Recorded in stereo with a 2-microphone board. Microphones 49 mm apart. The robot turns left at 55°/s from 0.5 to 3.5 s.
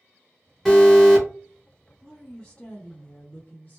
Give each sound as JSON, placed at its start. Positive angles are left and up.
{"t": 0.7, "sound": "an alarm", "side_deg": 5, "distance_m": 1.1}
{"t": 2.0, "sound": "a woman speaking", "azimuth_deg": 175, "distance_m": 1.6}